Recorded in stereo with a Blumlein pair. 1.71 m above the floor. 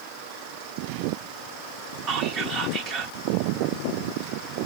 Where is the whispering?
35° right, 0.6 m.